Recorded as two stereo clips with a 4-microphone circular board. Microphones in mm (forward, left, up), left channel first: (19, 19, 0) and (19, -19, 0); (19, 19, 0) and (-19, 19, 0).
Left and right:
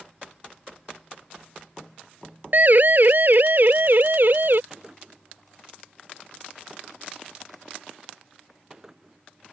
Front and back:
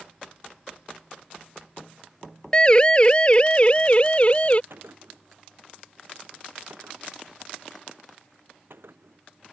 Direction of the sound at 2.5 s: 60° right.